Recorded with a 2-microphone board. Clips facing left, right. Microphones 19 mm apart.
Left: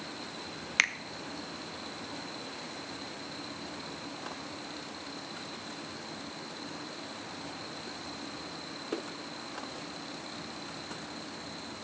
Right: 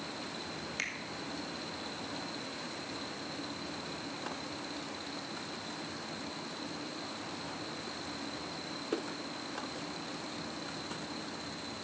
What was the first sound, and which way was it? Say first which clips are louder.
A finger snap: left 12 dB; 50° left (ahead or behind).